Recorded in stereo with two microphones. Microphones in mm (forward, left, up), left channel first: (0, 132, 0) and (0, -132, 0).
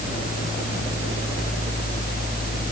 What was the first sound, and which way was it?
Only background noise.